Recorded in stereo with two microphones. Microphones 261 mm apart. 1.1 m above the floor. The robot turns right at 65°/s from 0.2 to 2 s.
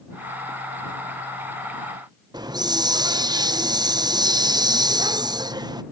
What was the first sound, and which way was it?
A hiss, 15° right (ahead or behind).